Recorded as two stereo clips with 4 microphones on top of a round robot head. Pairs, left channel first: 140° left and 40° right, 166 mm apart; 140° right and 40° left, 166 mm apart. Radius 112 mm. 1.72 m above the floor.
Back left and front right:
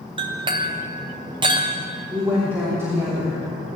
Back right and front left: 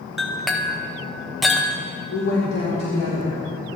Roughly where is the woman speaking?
Behind right.